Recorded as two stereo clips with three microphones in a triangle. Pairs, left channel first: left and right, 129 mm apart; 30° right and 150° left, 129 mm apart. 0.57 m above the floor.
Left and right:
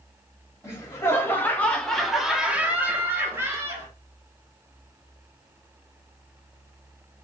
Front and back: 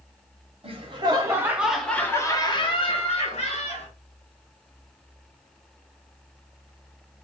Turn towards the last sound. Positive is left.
turn(degrees=-20)